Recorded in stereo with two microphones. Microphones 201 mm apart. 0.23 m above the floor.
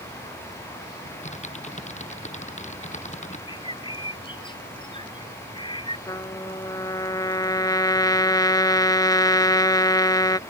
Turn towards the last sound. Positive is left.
turn(degrees=20)  # may be behind; listen again after turning